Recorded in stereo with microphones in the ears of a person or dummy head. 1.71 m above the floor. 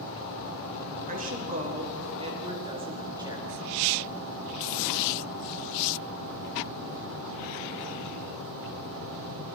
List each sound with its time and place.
1.1 s a woman speaking: 45° right (ahead or behind), 3.5 m; by 3.5 s 20° right (ahead or behind), 4 m